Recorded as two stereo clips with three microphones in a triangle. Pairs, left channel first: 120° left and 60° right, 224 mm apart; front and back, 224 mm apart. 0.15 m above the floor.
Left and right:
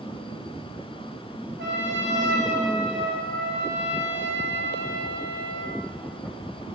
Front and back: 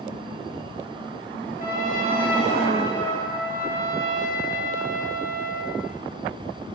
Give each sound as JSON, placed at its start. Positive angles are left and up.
{"t": 1.6, "sound": "a trumpet", "azimuth_deg": -45, "distance_m": 2.0}